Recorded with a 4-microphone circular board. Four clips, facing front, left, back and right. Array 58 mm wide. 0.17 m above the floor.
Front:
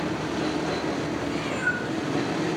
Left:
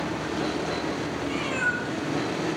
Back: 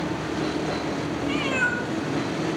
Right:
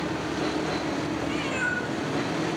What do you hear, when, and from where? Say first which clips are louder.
1.2 s a cat meowing: left 4 dB, back 5 dB; straight behind, 3.5 m